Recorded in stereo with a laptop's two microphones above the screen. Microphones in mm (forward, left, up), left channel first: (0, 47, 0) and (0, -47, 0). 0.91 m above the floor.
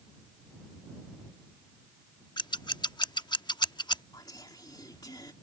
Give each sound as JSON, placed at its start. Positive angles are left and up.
{"t": 2.4, "sound": "scissors", "side_deg": 50}
{"t": 4.1, "sound": "whispering", "side_deg": 45}